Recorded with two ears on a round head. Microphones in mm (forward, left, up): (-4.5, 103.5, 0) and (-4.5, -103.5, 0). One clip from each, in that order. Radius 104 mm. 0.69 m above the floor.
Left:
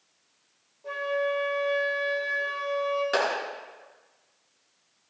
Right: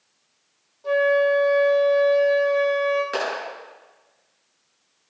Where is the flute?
65° right (ahead or behind), 5.5 m.